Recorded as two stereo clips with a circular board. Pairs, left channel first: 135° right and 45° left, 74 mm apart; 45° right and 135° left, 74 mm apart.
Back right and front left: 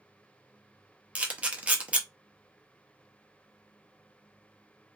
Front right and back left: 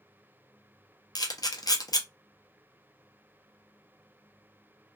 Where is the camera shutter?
25° right, 0.5 m.